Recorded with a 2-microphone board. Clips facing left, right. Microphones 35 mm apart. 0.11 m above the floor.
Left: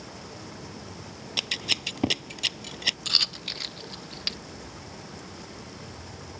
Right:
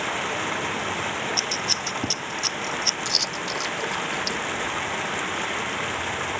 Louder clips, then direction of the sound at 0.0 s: Right 16 dB; 80° right.